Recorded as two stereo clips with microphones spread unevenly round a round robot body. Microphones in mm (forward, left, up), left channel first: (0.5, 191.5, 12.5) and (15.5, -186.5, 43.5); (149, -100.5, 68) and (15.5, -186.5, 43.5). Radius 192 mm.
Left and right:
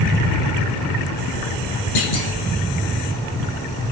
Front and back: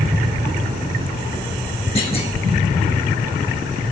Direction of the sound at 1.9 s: 105° left.